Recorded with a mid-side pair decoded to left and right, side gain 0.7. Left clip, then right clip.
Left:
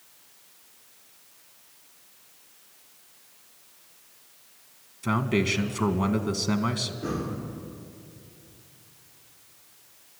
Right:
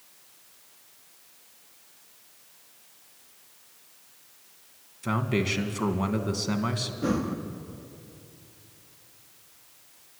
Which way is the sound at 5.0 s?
Straight ahead.